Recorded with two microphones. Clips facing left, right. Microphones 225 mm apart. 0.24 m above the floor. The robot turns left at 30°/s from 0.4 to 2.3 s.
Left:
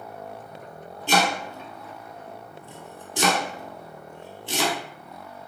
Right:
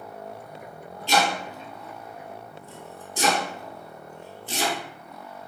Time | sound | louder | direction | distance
1.1 | chopping | left 1 dB | 55° left (ahead or behind) | 0.9 m